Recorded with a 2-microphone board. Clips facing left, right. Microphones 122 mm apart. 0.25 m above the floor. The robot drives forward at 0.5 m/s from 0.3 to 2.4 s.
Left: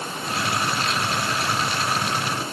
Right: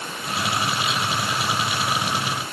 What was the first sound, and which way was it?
Only background noise.